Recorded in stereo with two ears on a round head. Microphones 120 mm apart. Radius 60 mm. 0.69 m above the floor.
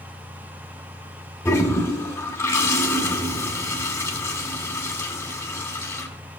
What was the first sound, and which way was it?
A toilet flushing, 20° left (ahead or behind).